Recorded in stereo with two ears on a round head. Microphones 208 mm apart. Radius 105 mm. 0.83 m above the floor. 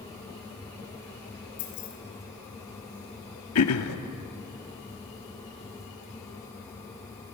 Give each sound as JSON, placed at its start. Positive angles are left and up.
{"t": 1.6, "sound": "keys jangling", "side_deg": 50, "distance_m": 4.0}
{"t": 3.5, "sound": "throat clearing", "side_deg": 70, "distance_m": 1.0}